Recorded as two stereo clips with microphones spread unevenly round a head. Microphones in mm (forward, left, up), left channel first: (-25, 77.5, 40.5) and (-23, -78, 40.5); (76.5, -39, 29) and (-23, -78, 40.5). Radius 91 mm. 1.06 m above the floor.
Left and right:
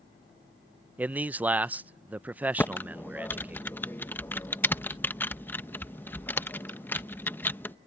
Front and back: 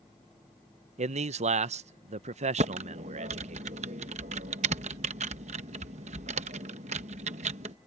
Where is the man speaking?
170° right.